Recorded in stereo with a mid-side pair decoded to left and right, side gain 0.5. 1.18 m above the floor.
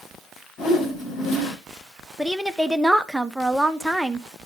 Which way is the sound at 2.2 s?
5° right.